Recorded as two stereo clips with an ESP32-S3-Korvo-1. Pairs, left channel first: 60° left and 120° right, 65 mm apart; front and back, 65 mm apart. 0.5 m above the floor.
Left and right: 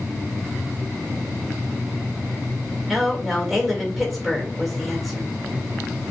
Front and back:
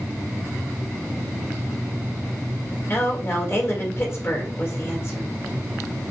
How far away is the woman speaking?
About 1.7 m.